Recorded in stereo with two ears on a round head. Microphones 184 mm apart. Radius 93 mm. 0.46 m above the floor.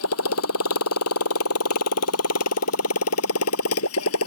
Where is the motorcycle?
85° left; by 4.3 s 80° left.